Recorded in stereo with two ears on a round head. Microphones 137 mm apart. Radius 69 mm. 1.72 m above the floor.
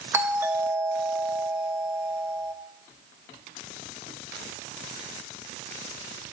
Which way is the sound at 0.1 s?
15° right (ahead or behind).